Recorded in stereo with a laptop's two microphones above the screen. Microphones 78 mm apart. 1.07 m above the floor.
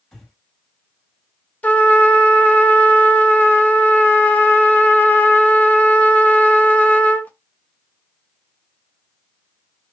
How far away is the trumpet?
About 0.6 m.